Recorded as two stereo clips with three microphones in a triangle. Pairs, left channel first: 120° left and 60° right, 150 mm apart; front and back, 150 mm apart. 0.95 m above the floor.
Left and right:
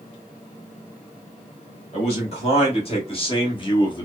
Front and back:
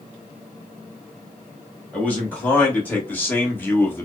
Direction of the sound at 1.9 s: 80° left.